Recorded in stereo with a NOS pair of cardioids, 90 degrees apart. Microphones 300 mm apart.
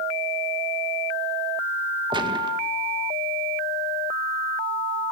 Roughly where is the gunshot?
Ahead.